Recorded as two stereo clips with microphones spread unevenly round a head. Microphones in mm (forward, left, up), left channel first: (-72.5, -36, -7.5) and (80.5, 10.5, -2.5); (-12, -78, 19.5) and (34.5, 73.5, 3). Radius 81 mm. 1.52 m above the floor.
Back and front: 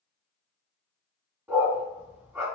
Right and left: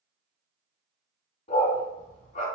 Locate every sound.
1.5 s a dog barking: 60° right, 4.5 m